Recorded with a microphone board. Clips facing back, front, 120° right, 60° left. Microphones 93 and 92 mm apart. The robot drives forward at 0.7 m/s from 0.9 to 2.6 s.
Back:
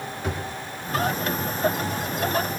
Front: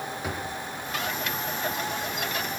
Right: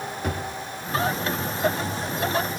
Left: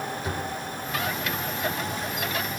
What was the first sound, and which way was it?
A drawer, 85° right.